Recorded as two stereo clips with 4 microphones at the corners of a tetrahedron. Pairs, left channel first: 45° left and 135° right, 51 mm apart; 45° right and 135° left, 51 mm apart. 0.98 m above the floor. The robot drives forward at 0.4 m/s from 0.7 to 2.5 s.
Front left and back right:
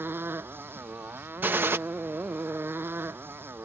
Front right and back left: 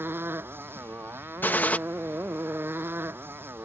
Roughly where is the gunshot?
Right.